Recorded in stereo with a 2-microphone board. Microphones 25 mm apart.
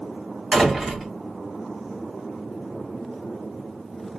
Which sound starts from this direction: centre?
A door slam, at 0.5 s.